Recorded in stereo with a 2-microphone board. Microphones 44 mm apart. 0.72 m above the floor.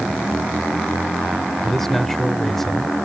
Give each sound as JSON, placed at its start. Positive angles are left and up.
{"t": 1.6, "sound": "a man speaking", "side_deg": 10}